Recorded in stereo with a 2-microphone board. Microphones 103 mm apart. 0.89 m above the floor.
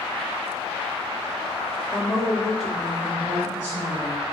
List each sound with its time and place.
1.9 s a woman speaking: centre (ahead or behind), 1.8 m; by 4.2 s 15° right (ahead or behind), 3 m